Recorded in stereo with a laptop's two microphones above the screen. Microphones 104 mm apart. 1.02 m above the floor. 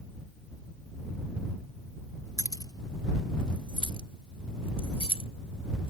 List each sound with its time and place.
2.4 s keys jangling: 35° left (ahead or behind); by 5.9 s 70° left (ahead or behind)